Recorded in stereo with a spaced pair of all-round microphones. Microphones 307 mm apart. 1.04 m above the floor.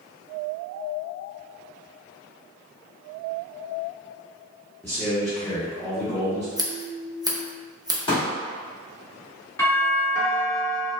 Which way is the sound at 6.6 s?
10° right (ahead or behind).